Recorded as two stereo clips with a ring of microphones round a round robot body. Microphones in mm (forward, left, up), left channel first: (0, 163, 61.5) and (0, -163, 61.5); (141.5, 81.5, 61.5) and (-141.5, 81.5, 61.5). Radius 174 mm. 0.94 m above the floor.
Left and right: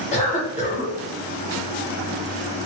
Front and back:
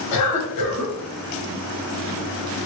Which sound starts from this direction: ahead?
A cough, at 0.1 s.